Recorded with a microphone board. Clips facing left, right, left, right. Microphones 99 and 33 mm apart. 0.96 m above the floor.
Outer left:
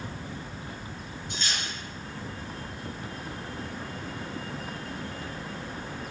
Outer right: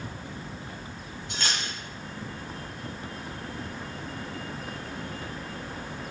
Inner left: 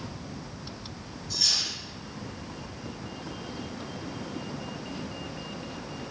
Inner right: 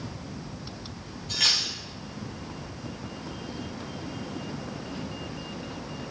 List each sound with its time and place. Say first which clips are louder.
1.3 s cutlery clinking: outer right 3 dB, inner right 4 dB; 80° right, 3.5 m